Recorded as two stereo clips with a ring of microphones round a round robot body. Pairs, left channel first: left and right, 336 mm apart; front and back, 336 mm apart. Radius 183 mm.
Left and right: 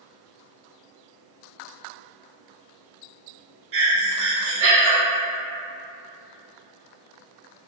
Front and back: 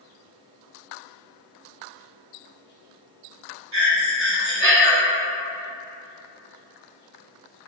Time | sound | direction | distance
3.7 | breathing | 135° right | 1.1 m